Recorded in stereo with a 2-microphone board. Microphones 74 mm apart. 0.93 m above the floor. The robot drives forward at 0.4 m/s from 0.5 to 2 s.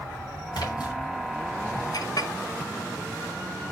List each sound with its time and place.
0.5 s a splash: 80° left, 3.5 m
1.9 s a clink: 60° left (ahead or behind), 0.8 m